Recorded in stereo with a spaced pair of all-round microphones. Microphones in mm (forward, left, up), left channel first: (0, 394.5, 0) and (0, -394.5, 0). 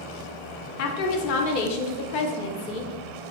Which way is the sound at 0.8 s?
85° left.